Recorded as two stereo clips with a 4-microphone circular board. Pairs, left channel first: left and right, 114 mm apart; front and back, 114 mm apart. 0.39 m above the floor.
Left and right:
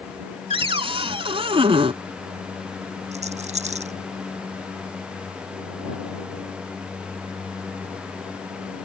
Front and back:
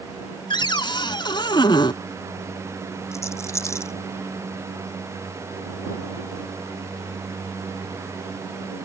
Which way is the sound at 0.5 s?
50° right.